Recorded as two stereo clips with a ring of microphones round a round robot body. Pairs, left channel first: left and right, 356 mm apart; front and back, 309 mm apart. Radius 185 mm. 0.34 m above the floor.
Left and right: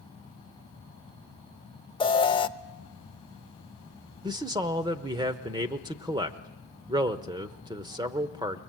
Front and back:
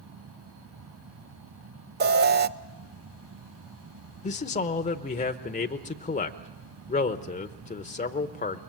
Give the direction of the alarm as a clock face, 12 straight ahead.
7 o'clock.